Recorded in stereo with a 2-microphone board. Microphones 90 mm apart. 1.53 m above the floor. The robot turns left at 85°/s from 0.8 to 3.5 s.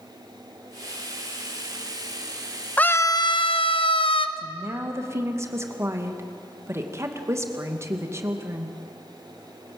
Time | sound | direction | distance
2.8 | a scream | 165° left | 1.3 m
4.4 | a woman speaking | 30° right (ahead or behind) | 2 m